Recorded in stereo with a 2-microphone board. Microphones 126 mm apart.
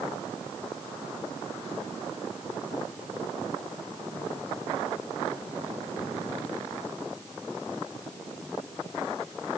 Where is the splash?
No splash in this recording.